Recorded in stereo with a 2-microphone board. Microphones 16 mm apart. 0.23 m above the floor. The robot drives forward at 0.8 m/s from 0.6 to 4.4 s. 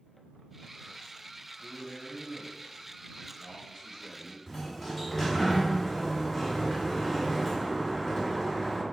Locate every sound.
1.6 s a man speaking: 15° left (ahead or behind), 1.2 m; by 4.4 s 5° left (ahead or behind), 3 m
4.5 s a sliding door: centre (ahead or behind), 1.9 m